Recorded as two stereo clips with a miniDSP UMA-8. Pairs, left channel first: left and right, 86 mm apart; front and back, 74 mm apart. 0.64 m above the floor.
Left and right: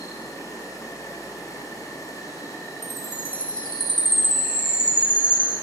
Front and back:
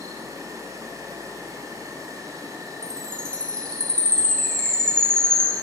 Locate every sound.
0.0 s an insect: 140° left, 6 m
2.8 s a chime: 80° left, 5 m